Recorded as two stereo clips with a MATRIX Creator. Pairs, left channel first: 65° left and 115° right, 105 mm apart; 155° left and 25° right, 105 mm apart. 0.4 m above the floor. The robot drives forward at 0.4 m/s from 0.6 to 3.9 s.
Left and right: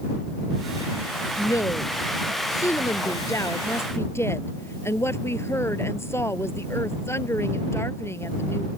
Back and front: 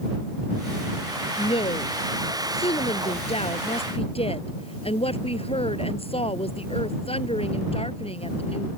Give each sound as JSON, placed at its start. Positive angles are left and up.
{"t": 1.4, "sound": "a woman speaking", "azimuth_deg": 125}